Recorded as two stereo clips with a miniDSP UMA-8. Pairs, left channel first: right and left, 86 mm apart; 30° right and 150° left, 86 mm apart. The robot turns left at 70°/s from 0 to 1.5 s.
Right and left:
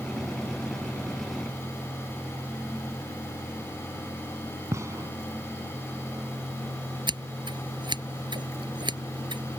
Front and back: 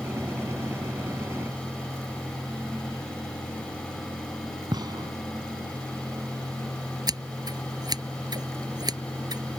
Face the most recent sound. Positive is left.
turn(degrees=115)